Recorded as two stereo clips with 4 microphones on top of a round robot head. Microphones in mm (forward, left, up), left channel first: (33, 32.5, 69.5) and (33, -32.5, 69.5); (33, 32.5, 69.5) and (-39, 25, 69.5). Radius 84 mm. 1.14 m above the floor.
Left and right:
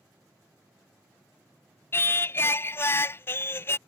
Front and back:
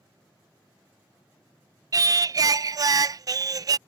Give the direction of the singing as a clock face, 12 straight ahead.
7 o'clock.